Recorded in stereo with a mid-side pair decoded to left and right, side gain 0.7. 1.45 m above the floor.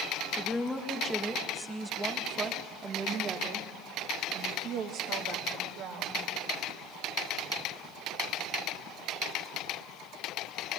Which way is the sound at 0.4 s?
10° left.